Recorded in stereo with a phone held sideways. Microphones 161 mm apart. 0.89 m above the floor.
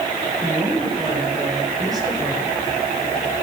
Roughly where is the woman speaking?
Right.